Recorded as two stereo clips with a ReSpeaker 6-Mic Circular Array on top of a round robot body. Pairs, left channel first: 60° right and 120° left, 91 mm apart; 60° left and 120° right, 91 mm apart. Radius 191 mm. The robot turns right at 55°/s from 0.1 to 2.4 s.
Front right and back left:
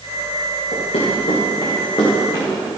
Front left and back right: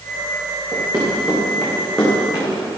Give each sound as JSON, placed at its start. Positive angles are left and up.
{"t": 0.7, "sound": "running footsteps", "azimuth_deg": -70, "distance_m": 6.0}